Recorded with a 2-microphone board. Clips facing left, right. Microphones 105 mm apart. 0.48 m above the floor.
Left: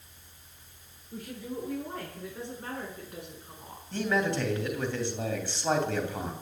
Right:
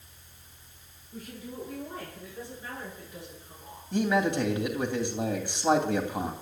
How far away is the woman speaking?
About 7.5 m.